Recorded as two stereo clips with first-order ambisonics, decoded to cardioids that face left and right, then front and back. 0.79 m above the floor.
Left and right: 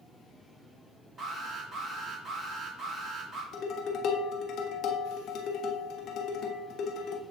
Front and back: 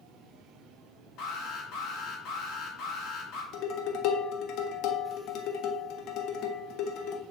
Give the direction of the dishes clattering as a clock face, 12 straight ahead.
11 o'clock.